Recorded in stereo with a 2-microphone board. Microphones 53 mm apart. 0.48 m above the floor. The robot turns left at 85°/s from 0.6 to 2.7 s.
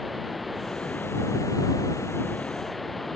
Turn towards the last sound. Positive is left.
turn(degrees=0)